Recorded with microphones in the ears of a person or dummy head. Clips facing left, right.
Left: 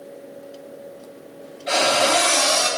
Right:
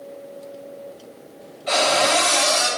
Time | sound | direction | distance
1.7 | a cupboard door | 10° left (ahead or behind) | 2.0 m